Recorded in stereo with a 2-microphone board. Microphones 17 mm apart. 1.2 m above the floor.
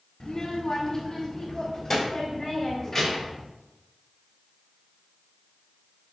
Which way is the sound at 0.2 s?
40° left (ahead or behind).